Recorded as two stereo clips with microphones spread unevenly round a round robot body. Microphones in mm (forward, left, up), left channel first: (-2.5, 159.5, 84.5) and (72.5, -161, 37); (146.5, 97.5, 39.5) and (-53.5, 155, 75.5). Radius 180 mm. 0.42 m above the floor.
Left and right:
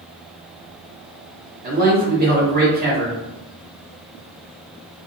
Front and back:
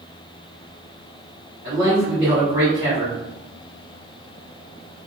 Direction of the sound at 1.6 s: 115° right.